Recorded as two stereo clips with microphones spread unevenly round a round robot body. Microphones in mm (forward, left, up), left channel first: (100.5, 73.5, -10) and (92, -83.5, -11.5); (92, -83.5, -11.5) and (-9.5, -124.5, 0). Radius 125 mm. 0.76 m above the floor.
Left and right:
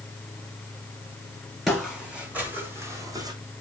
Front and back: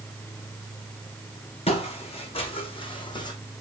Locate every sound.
1.7 s footsteps: 5° right, 2.5 m; by 3.3 s 30° right, 2 m